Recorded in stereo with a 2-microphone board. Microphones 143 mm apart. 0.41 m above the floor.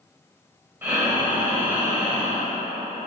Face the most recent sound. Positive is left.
turn(degrees=-15)  # may be behind; listen again after turning